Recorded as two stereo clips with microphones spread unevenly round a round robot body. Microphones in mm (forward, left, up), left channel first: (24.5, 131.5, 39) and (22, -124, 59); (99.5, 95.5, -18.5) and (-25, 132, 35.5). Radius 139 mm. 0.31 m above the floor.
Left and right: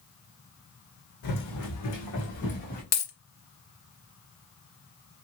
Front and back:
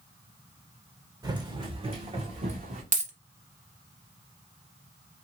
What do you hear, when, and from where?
1.2 s running footsteps: 110° left, 1.1 m; by 2.8 s 155° left, 1.3 m
2.9 s a dropped coin: 120° left, 0.9 m